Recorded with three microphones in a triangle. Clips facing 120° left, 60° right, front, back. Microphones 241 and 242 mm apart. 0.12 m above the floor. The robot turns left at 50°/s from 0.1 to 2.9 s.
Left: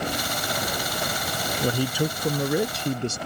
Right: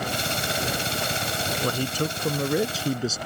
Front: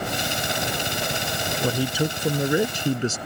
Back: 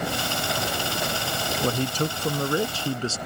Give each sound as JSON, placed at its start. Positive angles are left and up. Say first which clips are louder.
{"t": 1.6, "sound": "a man speaking", "louder": "left 3 dB, front 2 dB", "azimuth_deg": 80}